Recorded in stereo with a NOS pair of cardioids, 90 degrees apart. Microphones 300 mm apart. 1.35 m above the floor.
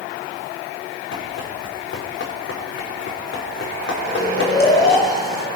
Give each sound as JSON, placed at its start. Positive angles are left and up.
{"t": 1.1, "sound": "running footsteps", "azimuth_deg": 50, "distance_m": 5.5}
{"t": 4.0, "sound": "snoring", "azimuth_deg": 35, "distance_m": 5.0}